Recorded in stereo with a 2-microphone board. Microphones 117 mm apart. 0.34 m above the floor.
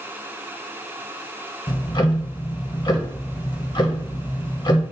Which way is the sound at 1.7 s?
40° left (ahead or behind).